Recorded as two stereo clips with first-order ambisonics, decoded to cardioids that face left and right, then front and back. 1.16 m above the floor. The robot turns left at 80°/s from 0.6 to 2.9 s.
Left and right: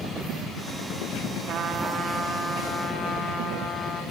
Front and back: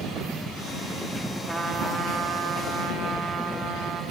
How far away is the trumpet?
About 0.7 m.